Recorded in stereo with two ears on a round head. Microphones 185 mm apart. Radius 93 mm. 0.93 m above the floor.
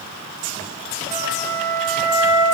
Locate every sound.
1.1 s a flute: 60° left (ahead or behind), 8.5 m